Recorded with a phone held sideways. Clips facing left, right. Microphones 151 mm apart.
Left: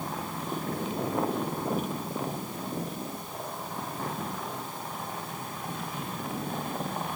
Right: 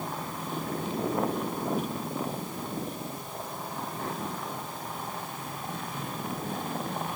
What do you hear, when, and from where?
Only background noise.